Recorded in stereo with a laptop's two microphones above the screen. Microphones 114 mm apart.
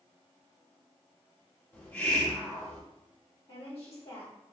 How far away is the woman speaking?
About 1.9 m.